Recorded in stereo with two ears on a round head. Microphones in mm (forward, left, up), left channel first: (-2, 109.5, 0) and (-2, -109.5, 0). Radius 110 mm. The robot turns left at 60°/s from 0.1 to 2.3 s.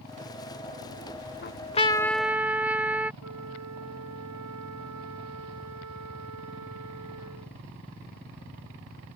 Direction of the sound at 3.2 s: 70° right (ahead or behind).